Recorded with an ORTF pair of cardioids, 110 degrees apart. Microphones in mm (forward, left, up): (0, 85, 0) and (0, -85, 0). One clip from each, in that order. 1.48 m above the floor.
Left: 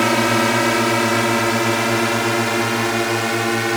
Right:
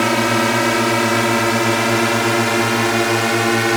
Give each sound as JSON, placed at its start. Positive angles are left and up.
{"t": 0.0, "sound": "a drone", "azimuth_deg": -5}